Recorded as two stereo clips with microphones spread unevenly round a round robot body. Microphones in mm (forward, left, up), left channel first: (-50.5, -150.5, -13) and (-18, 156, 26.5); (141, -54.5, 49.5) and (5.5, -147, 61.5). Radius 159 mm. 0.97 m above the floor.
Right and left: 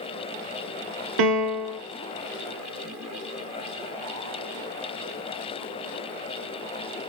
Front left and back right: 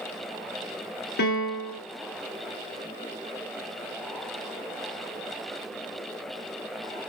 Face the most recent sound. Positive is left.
turn(degrees=60)